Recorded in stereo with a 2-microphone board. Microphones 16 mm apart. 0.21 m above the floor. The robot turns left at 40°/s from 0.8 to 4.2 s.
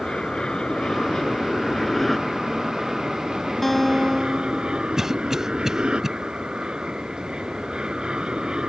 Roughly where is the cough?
Right.